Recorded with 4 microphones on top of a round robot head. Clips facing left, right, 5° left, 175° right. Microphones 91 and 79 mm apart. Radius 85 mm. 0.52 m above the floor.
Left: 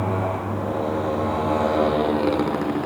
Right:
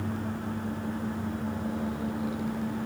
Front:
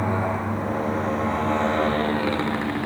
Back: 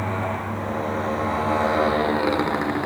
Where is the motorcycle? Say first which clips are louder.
Left 9 dB, front 2 dB; 85° left; by 2.9 s 115° left.